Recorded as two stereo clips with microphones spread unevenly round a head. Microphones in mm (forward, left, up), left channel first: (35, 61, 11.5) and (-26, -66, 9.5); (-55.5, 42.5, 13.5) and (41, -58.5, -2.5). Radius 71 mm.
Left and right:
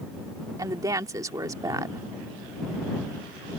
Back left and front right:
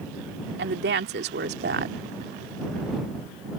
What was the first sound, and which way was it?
A woman speaking, 50° right.